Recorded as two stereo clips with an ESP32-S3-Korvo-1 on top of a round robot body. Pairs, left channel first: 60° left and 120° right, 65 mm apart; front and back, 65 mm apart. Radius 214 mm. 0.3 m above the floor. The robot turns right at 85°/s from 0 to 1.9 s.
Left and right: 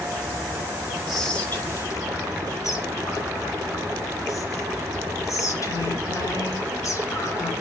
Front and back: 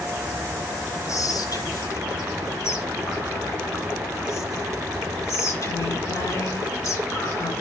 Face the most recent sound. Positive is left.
turn(degrees=35)